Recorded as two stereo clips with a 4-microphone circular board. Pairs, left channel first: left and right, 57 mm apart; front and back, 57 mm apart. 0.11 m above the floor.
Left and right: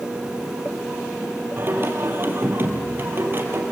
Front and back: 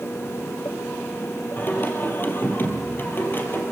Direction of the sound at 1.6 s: 45° right.